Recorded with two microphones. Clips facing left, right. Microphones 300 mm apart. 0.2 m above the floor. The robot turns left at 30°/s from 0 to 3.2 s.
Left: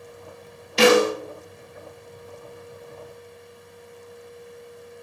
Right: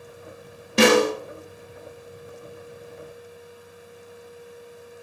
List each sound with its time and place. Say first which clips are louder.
0.8 s a snare drum: left 1 dB; 65° right (ahead or behind), 0.8 m; by 1.1 s 55° right (ahead or behind), 0.8 m